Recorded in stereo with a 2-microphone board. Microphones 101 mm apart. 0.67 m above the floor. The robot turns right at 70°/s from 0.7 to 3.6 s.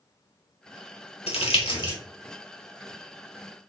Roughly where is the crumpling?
Left.